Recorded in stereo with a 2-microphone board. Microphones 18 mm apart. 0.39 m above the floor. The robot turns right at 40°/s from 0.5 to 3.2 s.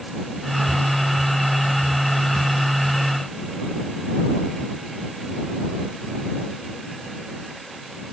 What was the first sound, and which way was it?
Only background noise.